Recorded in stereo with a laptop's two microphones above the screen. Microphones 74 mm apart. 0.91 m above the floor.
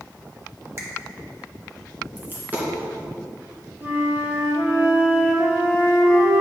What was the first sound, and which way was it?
A finger snap, 40° right (ahead or behind).